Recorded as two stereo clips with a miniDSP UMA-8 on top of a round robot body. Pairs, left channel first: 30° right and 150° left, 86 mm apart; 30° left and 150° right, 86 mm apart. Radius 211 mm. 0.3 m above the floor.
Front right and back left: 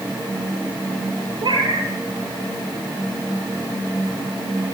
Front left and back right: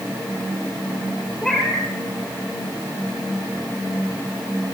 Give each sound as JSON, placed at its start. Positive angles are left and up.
{"t": 1.4, "sound": "a cat meowing", "azimuth_deg": 120, "distance_m": 5.0}